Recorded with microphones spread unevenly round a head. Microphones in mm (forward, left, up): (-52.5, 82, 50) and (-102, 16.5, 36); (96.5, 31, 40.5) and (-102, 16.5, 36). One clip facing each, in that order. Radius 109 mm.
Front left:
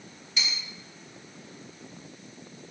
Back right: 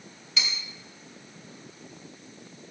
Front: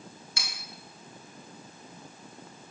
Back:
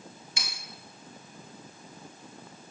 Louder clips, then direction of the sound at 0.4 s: Back right 1 dB, back 1 dB; 105° right.